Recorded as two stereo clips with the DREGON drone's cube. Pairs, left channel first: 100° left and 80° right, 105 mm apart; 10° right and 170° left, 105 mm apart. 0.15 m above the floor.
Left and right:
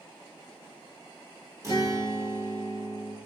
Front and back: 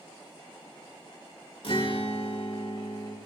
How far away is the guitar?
About 2.5 m.